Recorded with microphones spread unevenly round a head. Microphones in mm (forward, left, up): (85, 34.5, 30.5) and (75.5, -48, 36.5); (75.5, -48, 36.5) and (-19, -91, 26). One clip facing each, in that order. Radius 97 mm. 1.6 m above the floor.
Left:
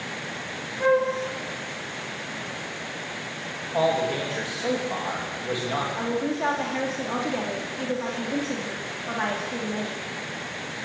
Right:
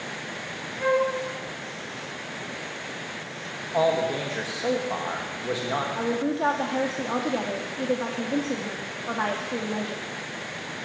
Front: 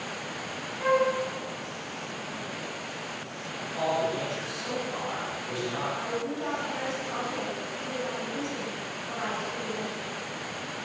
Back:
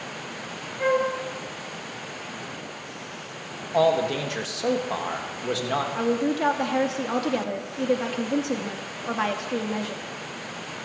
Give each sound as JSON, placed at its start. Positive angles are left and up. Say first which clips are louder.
{"t": 0.8, "sound": "a flute", "louder": "left 2 dB, back 1 dB", "azimuth_deg": 160, "distance_m": 3.5}
{"t": 3.7, "sound": "a man speaking", "louder": "even, back 7 dB", "azimuth_deg": -175, "distance_m": 3.0}
{"t": 6.0, "sound": "a woman speaking", "louder": "right 1 dB, back 8 dB", "azimuth_deg": -170, "distance_m": 2.5}